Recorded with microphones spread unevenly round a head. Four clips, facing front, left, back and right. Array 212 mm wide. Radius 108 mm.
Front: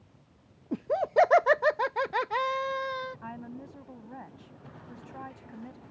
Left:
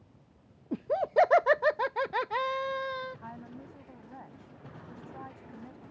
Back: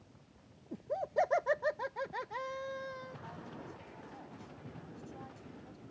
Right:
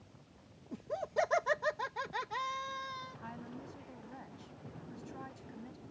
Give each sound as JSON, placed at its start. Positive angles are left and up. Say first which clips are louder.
{"t": 0.7, "sound": "laughter", "louder": "left 10 dB, front 9 dB", "azimuth_deg": 15}
{"t": 3.2, "sound": "a woman speaking", "louder": "left 2 dB, front 6 dB", "azimuth_deg": -5}